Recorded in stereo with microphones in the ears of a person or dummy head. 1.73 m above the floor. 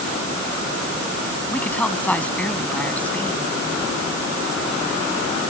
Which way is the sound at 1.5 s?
10° left (ahead or behind).